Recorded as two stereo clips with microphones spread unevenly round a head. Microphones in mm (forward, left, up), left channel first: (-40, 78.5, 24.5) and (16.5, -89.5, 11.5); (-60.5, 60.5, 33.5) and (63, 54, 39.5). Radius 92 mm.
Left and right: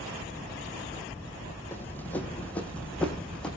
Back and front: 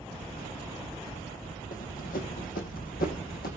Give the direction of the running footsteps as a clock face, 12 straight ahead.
6 o'clock.